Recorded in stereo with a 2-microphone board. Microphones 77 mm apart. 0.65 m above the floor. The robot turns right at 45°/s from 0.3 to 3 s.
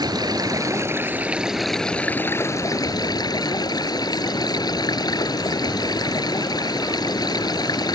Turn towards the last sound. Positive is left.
turn(degrees=60)